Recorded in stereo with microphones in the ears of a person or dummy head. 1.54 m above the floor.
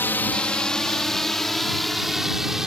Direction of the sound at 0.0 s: 10° left (ahead or behind).